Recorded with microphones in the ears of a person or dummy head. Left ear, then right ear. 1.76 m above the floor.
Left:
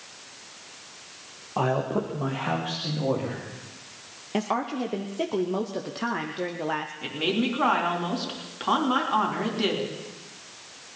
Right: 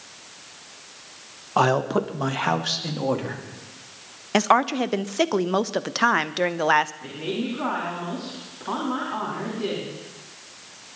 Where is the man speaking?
55° right (ahead or behind), 1.1 m; by 3.4 s 75° right (ahead or behind), 3 m.